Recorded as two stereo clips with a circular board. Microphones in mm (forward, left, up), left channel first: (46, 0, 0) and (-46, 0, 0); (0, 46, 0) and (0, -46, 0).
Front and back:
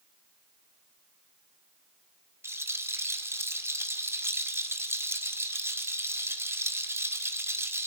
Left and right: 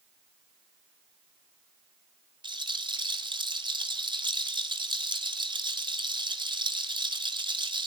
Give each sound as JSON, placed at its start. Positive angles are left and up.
{"t": 2.4, "sound": "a rattle", "azimuth_deg": -115, "distance_m": 2.5}